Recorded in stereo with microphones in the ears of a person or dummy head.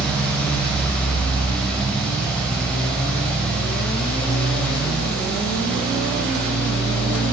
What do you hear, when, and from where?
0.0 s a fan: 5° left (ahead or behind), 3 m